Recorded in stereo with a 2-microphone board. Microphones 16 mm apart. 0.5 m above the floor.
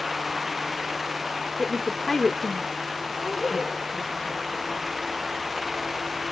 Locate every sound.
1.6 s a woman speaking: 25° left (ahead or behind), 1.2 m
3.2 s a woman speaking: 65° left (ahead or behind), 5 m